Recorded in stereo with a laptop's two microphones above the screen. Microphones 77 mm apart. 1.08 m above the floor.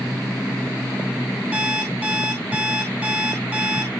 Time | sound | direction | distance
1.5 | an alarm clock | 20° right (ahead or behind) | 3 m